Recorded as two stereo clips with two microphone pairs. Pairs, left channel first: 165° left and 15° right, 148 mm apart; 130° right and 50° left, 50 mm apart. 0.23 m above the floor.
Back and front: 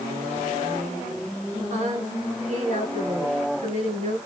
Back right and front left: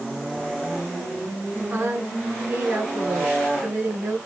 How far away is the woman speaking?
About 2.5 m.